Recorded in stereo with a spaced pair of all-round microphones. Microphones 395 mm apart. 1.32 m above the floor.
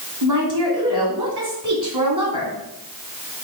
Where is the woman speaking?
70° right (ahead or behind), 3 m.